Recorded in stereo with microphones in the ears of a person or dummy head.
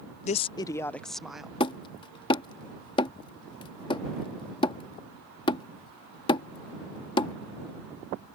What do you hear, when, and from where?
0.2 s a woman speaking: 40° left (ahead or behind); by 1.5 s 5° right (ahead or behind)
1.6 s hammering: 30° left (ahead or behind)